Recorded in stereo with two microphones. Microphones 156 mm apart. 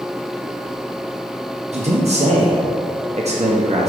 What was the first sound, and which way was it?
A man speaking, 45° right (ahead or behind).